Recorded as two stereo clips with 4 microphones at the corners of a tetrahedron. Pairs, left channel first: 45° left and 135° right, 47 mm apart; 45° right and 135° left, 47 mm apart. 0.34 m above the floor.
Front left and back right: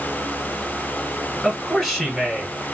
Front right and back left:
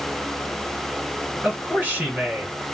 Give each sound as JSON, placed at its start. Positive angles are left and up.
{"t": 1.4, "sound": "a man speaking", "azimuth_deg": 145, "distance_m": 1.5}